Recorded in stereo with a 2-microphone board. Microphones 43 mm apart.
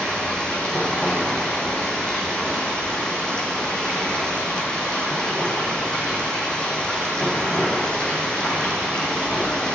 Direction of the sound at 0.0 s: 20° left (ahead or behind).